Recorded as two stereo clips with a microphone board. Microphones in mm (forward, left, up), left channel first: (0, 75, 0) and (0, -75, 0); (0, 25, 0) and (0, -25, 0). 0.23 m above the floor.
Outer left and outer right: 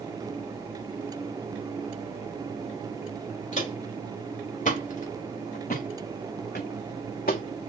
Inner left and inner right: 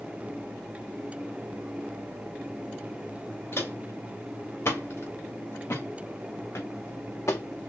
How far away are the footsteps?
About 3 m.